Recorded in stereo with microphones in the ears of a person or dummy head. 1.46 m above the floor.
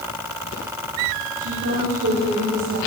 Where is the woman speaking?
85° right, 3.5 m; by 2.8 s 80° right, 5.5 m.